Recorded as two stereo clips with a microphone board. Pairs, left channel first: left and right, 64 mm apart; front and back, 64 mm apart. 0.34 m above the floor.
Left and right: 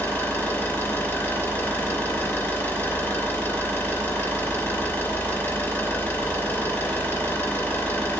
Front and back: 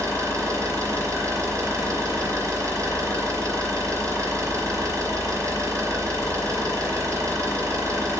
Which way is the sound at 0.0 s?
140° left.